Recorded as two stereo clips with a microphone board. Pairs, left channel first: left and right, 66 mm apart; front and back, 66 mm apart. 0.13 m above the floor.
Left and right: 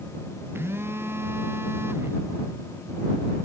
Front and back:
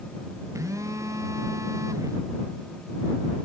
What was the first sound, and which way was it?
A phone buzzing, 140° right.